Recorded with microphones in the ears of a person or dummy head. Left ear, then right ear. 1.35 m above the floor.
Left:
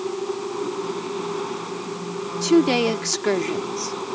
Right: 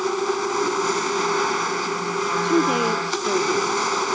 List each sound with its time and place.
0.0 s a machine running: 65° right (ahead or behind)
2.4 s a woman speaking: 50° left (ahead or behind)